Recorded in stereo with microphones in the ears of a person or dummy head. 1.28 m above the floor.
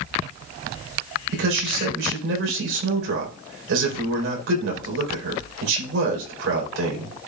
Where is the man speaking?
90° right, 4.5 m.